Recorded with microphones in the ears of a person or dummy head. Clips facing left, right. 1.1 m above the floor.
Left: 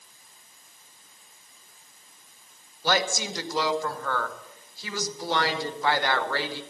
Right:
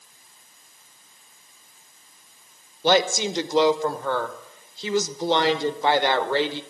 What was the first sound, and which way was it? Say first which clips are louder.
A woman speaking: right 6 dB; 15° right (ahead or behind).